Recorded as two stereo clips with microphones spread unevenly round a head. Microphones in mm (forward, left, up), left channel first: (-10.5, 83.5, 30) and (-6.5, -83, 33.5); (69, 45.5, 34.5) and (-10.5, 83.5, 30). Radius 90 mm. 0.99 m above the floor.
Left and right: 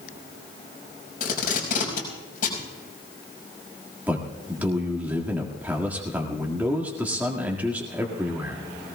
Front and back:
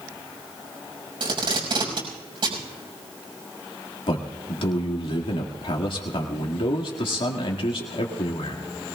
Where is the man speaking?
10° right, 1.8 m.